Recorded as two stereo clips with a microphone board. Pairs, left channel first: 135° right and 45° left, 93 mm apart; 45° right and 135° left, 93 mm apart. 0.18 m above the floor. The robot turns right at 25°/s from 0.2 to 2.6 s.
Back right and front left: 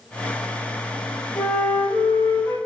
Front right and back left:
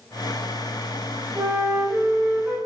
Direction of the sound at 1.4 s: 175° left.